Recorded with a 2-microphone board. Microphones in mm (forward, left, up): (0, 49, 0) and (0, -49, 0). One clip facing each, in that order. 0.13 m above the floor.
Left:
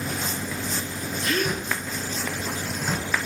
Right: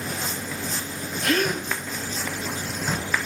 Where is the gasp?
60° right (ahead or behind), 1.6 m.